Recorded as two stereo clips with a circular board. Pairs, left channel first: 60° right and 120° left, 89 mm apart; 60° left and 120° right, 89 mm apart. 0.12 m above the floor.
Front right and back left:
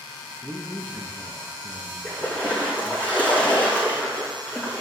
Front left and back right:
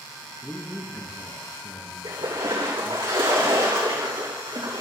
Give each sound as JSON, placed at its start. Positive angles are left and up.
{"t": 0.4, "sound": "a man speaking", "azimuth_deg": -25, "distance_m": 1.6}
{"t": 2.0, "sound": "a splash", "azimuth_deg": -130, "distance_m": 5.0}